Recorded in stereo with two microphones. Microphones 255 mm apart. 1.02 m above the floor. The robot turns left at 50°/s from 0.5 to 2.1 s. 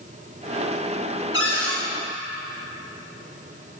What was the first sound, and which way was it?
A cupboard door, 55° left (ahead or behind).